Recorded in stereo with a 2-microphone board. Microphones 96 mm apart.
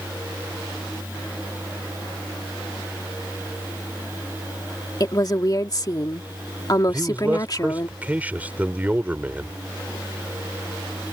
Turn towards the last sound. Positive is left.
turn(degrees=-20)  # may be behind; listen again after turning